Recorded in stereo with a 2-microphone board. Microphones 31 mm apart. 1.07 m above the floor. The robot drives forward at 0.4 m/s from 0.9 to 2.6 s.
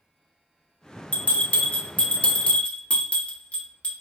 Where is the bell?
60° left (ahead or behind), 0.9 m; by 3.9 s 50° left (ahead or behind), 1.0 m.